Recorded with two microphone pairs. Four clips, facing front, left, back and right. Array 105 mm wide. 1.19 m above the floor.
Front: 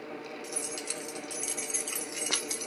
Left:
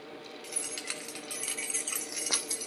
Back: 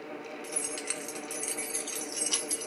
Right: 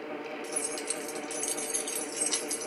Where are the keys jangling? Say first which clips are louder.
Right 7 dB, even; 140° left, 1.1 m; by 2.7 s 20° left, 0.8 m.